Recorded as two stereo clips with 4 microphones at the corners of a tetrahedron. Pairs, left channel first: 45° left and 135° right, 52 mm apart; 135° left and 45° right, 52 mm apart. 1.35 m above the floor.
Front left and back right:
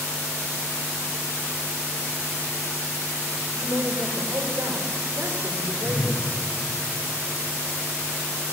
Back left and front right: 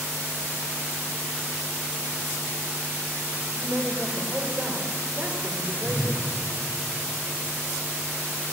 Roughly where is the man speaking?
Right.